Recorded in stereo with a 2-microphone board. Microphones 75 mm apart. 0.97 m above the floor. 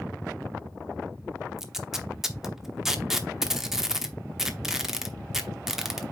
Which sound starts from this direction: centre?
Tape being pulled, at 1.6 s.